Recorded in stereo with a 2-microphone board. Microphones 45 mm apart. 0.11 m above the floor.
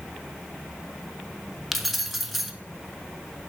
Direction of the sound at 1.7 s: Centre (ahead or behind).